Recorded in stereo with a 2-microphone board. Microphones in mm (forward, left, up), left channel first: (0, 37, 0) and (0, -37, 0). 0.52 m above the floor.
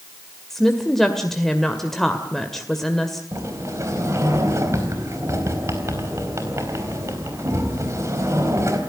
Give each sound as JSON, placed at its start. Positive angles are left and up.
{"t": 0.5, "sound": "a woman speaking", "side_deg": 5, "distance_m": 1.9}
{"t": 3.3, "sound": "a sliding door", "side_deg": -40, "distance_m": 3.5}